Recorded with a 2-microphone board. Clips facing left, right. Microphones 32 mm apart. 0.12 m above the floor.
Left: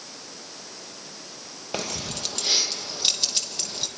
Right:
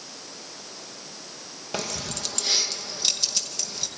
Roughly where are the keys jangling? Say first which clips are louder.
Even; centre.